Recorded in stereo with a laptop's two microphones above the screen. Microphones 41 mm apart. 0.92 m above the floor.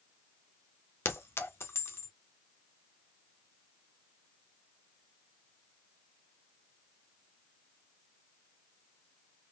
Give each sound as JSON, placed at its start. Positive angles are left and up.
{"t": 1.1, "sound": "a clink", "side_deg": 80, "distance_m": 0.6}